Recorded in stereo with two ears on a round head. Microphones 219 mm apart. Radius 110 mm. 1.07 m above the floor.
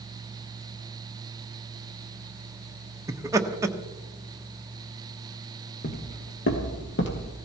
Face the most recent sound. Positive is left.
turn(degrees=50)  # may be behind; listen again after turning